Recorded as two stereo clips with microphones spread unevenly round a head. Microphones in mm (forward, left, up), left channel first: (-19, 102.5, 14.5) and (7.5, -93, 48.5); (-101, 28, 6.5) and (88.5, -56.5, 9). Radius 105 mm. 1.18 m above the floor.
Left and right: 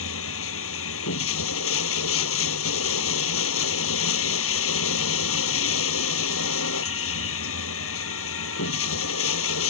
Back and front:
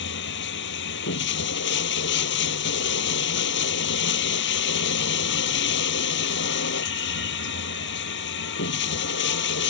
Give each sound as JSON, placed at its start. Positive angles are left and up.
{"t": 0.0, "sound": "running water", "azimuth_deg": 115}